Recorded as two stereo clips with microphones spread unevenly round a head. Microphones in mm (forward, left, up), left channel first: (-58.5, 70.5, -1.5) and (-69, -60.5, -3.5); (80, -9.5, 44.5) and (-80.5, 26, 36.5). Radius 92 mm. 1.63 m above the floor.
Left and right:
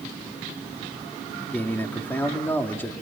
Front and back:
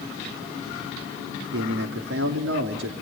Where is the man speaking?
160° left, 3 m.